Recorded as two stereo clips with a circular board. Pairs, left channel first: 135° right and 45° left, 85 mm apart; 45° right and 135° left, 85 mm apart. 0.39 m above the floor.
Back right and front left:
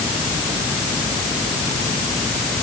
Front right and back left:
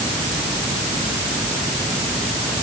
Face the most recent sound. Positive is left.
No sound to turn to.